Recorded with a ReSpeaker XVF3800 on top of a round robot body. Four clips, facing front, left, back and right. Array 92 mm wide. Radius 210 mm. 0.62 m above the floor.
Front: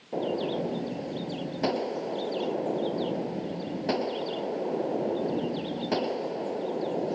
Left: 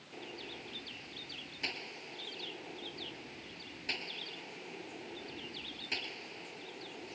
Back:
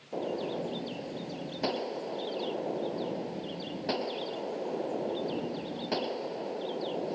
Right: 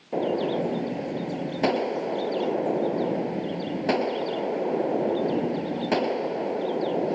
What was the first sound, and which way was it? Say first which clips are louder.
A gunshot: right 23 dB, front 4 dB; 85° right.